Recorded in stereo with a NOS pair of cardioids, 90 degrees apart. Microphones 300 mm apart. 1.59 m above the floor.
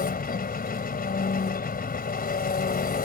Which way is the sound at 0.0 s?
30° left.